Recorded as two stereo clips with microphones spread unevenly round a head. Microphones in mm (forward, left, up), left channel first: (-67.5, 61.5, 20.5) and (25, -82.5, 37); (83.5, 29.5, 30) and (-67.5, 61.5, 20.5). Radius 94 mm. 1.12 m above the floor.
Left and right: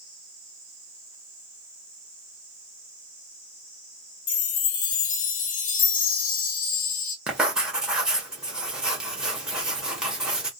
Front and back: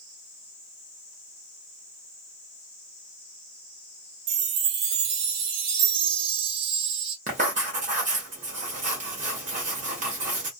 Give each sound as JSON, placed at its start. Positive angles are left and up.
{"t": 4.3, "sound": "a chime", "azimuth_deg": 170, "distance_m": 0.6}
{"t": 7.3, "sound": "writing", "azimuth_deg": -140, "distance_m": 1.1}